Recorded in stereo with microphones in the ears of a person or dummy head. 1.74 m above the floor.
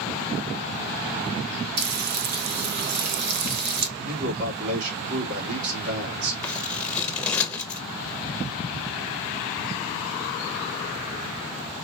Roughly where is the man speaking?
Right.